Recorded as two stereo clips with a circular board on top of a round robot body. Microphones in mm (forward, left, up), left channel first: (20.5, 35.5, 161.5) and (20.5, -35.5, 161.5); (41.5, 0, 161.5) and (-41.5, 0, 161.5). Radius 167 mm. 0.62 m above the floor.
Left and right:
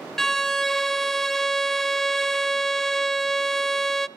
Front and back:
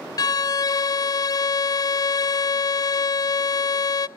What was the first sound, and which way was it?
A violin, 5° left.